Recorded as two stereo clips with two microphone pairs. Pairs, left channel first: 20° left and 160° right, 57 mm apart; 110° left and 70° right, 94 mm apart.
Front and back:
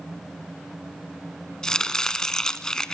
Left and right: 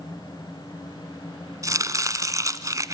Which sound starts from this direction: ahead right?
Chopping, at 1.6 s.